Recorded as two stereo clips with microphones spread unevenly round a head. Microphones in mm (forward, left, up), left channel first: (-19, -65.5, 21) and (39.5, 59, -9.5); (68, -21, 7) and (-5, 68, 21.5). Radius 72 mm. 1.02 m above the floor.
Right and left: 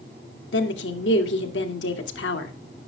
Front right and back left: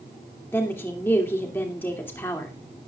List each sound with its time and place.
0.5 s a woman speaking: 125° right, 2.5 m